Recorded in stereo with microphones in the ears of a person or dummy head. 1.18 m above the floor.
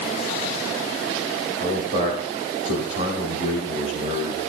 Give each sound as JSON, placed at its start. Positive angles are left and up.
{"t": 1.6, "sound": "a man speaking", "side_deg": -40, "distance_m": 7.5}